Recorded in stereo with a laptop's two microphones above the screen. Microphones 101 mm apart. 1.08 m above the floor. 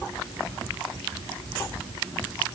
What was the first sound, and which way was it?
Only background noise.